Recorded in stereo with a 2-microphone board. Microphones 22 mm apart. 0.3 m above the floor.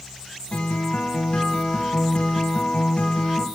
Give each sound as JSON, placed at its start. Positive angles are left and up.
{"t": 0.5, "sound": "a guitar", "side_deg": 55, "distance_m": 0.7}